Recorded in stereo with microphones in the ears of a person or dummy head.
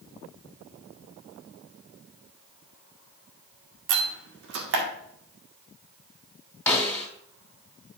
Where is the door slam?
65° right (ahead or behind), 1.9 m.